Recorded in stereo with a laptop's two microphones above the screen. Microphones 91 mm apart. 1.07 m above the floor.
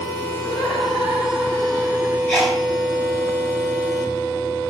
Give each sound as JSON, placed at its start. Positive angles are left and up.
{"t": 0.4, "sound": "laughter", "side_deg": -5, "distance_m": 2.0}
{"t": 2.3, "sound": "a sneeze", "side_deg": 10, "distance_m": 4.5}